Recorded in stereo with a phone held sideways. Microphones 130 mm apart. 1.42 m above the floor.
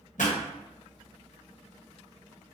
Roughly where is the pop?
Left.